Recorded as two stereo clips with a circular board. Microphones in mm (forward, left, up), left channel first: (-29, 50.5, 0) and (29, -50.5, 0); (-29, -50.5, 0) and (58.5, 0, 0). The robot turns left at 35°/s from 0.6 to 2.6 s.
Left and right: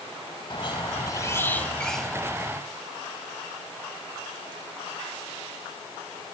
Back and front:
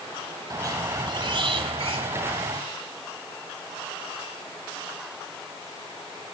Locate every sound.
0.5 s a squeak: 80° left, 1.5 m; by 2.6 s 10° left, 1.5 m